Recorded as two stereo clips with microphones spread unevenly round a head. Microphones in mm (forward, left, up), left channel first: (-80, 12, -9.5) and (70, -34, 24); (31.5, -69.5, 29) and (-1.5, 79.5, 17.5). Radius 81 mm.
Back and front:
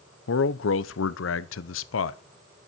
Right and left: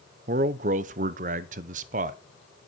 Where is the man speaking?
150° left, 0.8 m.